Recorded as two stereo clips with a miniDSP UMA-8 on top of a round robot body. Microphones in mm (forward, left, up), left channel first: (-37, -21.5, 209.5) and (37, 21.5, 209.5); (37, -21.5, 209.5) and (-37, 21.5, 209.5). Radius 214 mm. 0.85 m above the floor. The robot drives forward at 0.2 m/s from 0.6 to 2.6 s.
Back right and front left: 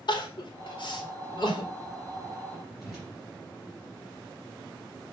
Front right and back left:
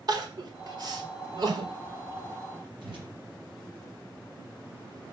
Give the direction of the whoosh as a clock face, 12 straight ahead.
8 o'clock.